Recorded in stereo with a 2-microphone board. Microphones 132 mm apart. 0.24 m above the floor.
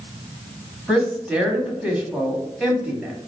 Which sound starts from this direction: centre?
A woman speaking, at 0.9 s.